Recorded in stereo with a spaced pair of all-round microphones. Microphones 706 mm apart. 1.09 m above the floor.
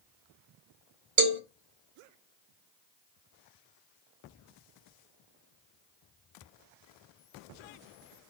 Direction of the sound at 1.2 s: 65° right (ahead or behind).